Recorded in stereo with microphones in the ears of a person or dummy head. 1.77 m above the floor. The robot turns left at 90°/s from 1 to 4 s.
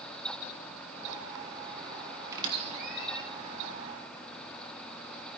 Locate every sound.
2.3 s a squeak: 15° right (ahead or behind), 1.2 m; by 3.2 s 55° right (ahead or behind), 1.2 m